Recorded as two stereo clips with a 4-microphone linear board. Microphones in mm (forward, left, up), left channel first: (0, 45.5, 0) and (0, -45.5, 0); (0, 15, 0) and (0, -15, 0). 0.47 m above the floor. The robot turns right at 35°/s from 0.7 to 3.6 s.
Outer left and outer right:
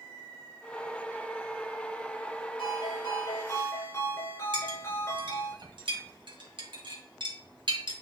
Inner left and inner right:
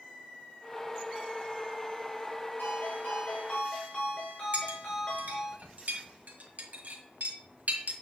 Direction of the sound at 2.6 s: 110° left.